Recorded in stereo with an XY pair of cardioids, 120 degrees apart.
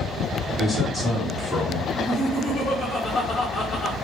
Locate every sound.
0.6 s a man speaking: 15° left, 2 m
1.9 s laughter: 45° left, 1.1 m